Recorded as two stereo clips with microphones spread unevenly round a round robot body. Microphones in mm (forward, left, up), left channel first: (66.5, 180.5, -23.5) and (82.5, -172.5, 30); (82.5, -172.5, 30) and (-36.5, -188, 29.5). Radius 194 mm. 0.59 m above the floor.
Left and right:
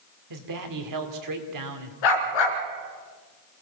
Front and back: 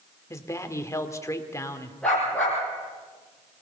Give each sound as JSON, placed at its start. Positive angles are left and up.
{"t": 0.3, "sound": "a man speaking", "azimuth_deg": -55, "distance_m": 2.5}
{"t": 2.0, "sound": "a dog barking", "azimuth_deg": 95, "distance_m": 2.5}